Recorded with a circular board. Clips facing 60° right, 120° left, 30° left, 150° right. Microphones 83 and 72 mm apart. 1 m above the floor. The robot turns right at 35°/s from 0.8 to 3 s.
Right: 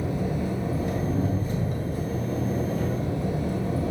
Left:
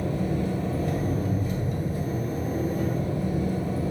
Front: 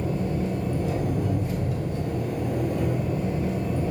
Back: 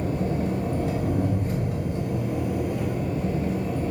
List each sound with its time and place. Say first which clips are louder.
0.0 s an engine running: left 1 dB, back 1 dB; 135° right, 2.5 m; by 3.9 s 55° right, 2.5 m